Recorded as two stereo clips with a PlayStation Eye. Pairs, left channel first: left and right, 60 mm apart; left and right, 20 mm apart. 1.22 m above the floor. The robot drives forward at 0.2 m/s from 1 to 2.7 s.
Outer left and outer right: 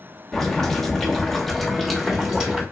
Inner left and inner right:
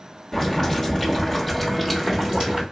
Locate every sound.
0.3 s boiling: 5° left (ahead or behind), 1.1 m